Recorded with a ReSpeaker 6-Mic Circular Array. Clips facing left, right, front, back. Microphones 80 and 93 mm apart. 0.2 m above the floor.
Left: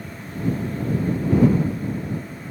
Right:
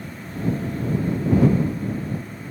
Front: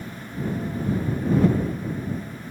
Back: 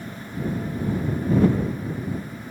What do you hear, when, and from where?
Only background noise.